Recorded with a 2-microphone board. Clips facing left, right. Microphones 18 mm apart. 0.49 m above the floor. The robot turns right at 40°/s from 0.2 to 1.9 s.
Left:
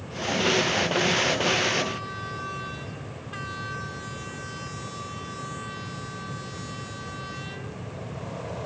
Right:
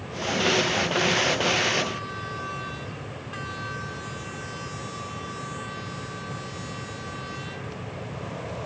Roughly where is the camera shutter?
I don't hear a camera shutter.